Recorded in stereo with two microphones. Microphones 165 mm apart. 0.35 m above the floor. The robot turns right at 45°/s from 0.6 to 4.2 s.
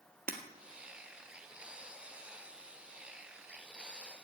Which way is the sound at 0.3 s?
60° right (ahead or behind).